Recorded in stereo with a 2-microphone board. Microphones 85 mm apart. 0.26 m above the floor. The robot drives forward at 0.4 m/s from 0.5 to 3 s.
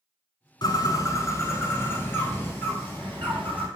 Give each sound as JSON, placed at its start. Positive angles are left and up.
{"t": 0.6, "sound": "a bird", "side_deg": 55, "distance_m": 0.6}